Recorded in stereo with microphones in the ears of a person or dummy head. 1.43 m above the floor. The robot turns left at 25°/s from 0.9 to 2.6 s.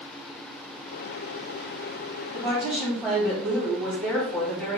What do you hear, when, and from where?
2.3 s a woman speaking: centre (ahead or behind), 1.7 m; by 4.8 s 10° left (ahead or behind), 1.7 m